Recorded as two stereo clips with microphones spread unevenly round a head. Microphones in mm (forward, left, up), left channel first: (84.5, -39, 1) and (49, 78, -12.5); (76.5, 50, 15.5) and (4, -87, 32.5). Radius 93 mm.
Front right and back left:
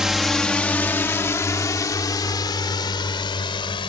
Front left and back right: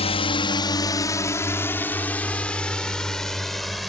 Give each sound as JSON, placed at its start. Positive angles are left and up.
{"t": 0.0, "sound": "a drone", "azimuth_deg": 25}